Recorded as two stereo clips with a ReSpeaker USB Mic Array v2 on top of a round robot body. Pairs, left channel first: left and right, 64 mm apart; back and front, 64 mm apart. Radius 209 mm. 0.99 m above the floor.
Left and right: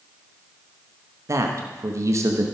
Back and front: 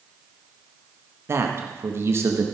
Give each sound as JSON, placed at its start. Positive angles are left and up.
{"t": 1.3, "sound": "a man speaking", "azimuth_deg": -50, "distance_m": 1.3}